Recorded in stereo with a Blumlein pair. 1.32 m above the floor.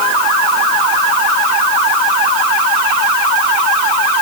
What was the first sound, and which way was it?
Only background noise.